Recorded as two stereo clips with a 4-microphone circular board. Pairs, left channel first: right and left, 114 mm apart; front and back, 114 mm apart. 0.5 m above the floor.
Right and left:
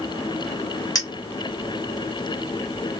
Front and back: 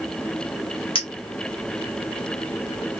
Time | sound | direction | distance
0.9 | a clink | 35° right | 1.6 m